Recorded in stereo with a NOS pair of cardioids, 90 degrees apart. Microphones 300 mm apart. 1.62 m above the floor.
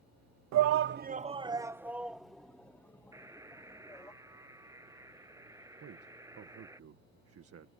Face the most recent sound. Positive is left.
turn(degrees=-50)